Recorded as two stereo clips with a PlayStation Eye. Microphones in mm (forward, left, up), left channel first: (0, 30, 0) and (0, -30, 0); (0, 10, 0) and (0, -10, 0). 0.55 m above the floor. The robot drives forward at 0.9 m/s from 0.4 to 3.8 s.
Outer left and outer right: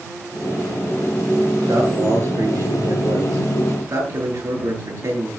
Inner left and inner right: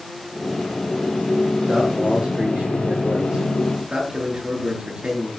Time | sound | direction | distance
1.7 | a man speaking | 70° right (ahead or behind) | 9 m